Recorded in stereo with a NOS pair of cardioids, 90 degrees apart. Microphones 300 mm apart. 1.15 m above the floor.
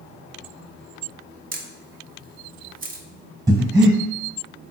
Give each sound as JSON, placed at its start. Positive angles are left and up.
{"t": 1.5, "sound": "a camera shutter", "azimuth_deg": -30, "distance_m": 0.5}
{"t": 3.5, "sound": "breathing", "azimuth_deg": -10, "distance_m": 0.7}